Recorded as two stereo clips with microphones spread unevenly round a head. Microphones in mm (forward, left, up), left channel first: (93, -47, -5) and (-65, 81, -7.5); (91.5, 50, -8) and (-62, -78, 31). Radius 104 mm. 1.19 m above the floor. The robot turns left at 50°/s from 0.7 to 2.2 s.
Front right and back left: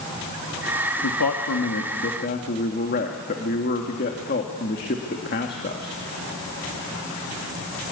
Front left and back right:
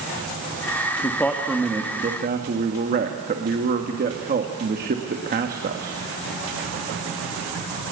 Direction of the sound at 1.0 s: 30° right.